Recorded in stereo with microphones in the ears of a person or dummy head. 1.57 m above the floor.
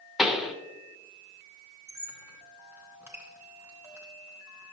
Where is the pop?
Centre (ahead or behind), 0.7 m.